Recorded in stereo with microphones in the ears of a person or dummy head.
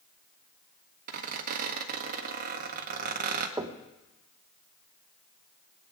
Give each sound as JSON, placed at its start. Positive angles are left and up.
{"t": 1.1, "sound": "a squeak", "side_deg": -45, "distance_m": 1.4}
{"t": 3.6, "sound": "knocking", "side_deg": -15, "distance_m": 0.9}